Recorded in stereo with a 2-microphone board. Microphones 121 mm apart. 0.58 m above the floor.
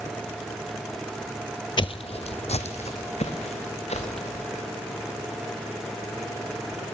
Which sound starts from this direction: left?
Footsteps, at 1.8 s.